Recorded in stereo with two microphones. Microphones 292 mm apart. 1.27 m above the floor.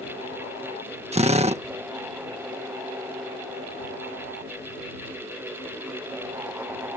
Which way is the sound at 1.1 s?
20° right (ahead or behind).